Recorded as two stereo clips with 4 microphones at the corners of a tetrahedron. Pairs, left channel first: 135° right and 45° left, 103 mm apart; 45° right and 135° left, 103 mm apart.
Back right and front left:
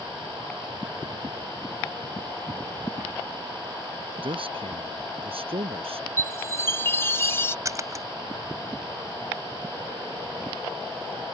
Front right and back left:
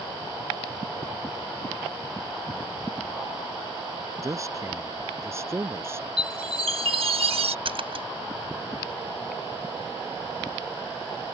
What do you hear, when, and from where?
4.2 s a man speaking: 75° left; by 6.3 s 70° left
6.2 s a chime: 160° left
7.7 s a splash: 105° left